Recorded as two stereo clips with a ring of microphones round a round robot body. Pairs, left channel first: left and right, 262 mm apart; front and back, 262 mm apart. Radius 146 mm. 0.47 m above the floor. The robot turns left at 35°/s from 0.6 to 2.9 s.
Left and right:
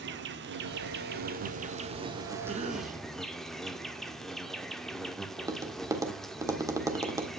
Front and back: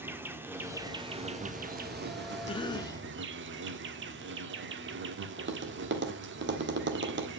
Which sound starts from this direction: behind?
Tapping, at 5.4 s.